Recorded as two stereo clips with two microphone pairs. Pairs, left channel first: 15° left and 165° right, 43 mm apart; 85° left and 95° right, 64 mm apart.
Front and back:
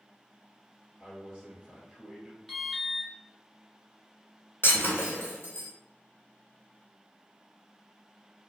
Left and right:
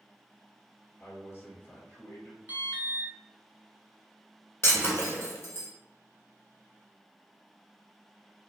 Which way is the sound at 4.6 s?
40° left.